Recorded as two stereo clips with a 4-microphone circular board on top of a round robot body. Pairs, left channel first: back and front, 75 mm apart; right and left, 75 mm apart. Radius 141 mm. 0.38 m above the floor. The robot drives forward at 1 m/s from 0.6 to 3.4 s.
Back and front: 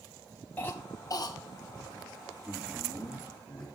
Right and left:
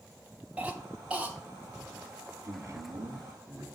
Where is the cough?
140° left, 0.8 m; by 1.4 s 170° left, 1.3 m.